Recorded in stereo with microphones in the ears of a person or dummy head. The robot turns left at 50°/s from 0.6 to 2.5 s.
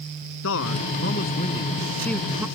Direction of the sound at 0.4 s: 85° left.